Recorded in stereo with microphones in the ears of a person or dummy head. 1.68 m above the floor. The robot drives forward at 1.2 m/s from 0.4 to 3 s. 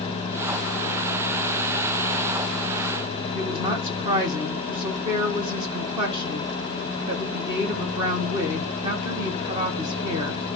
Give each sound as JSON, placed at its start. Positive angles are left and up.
{"t": 3.3, "sound": "a woman speaking", "side_deg": -25, "distance_m": 1.7}